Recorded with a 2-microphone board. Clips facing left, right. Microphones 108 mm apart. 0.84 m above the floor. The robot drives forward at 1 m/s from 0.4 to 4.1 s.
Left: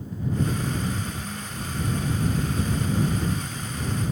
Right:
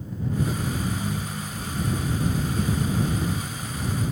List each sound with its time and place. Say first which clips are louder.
0.8 s a ringtone: right 2 dB; 45° right (ahead or behind), 2.5 m; by 1.8 s 65° right (ahead or behind), 2 m